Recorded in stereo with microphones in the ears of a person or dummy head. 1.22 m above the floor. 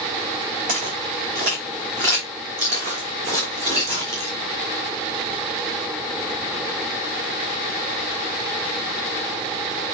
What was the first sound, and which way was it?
Footsteps, 50° right (ahead or behind).